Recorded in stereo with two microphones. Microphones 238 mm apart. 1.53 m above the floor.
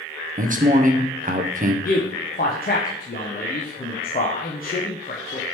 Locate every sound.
0.4 s a man speaking: 35° right (ahead or behind), 0.5 m
1.9 s a man speaking: 40° left (ahead or behind), 0.5 m